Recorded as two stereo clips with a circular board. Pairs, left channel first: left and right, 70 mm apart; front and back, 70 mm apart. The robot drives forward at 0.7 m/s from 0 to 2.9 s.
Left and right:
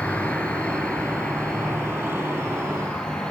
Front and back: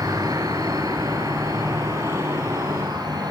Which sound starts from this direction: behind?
An insect, at 0.0 s.